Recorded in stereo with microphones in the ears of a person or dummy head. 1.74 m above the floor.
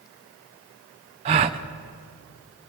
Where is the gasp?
35° right (ahead or behind), 0.6 m.